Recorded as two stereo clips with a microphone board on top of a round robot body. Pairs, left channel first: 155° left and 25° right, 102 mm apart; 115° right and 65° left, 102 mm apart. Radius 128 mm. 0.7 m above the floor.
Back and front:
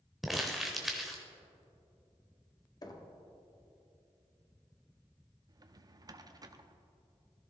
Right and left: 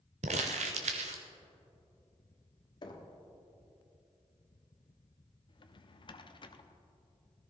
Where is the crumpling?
65° left, 0.5 m.